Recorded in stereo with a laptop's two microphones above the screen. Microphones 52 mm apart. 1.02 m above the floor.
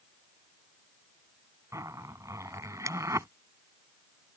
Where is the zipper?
75° right (ahead or behind).